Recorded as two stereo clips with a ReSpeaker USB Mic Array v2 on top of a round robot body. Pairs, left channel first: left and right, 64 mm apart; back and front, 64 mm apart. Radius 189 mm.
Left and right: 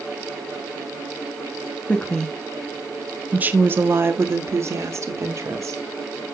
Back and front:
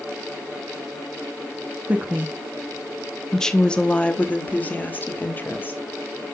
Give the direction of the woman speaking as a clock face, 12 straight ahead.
11 o'clock.